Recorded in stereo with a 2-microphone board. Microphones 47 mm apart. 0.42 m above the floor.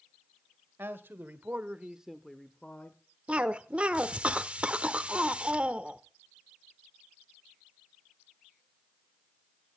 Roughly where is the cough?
Right.